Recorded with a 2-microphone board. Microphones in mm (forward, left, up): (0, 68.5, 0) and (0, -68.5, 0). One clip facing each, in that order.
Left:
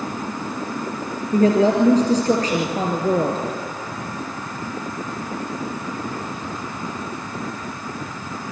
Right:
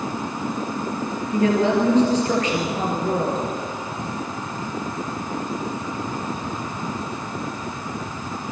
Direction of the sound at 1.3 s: 35° left (ahead or behind).